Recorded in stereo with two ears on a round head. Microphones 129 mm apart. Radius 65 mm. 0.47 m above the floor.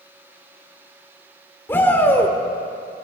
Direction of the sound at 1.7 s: 15° left (ahead or behind).